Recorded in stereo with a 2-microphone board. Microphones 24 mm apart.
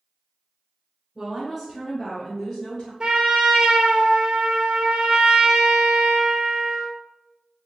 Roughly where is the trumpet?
Right.